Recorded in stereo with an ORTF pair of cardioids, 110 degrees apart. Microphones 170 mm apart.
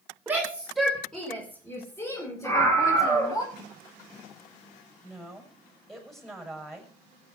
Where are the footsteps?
I don't hear footsteps.